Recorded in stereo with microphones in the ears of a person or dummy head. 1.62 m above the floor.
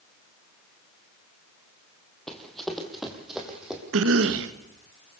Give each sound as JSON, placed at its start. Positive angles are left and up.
{"t": 2.3, "sound": "running footsteps", "side_deg": 0, "distance_m": 3.0}
{"t": 3.9, "sound": "a cough", "side_deg": -70, "distance_m": 1.6}